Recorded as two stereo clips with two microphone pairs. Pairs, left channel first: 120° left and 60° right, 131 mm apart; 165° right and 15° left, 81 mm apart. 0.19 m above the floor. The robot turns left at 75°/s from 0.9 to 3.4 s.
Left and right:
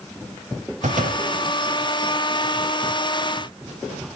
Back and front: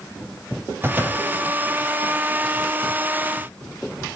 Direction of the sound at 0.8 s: 45° right.